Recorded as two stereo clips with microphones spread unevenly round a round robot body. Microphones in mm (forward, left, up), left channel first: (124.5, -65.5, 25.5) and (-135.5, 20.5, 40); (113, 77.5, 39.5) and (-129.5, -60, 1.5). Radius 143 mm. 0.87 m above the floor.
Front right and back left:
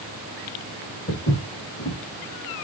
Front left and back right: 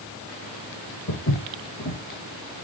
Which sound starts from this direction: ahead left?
Footsteps, at 1.1 s.